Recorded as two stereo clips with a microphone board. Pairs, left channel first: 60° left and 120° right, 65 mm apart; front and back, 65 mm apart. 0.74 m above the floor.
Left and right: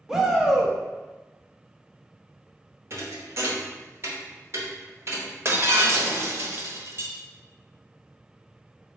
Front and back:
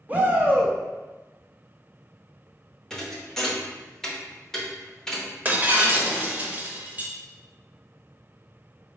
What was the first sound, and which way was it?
A shout, 170° left.